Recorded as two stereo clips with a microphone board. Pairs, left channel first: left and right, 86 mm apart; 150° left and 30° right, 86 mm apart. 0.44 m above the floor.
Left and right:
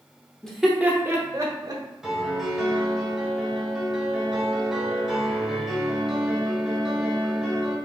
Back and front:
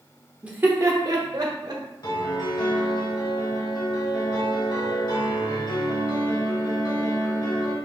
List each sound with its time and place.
0.4 s laughter: 30° left, 0.8 m; by 1.8 s 60° right, 1.5 m
2.0 s a piano: 175° right, 1.1 m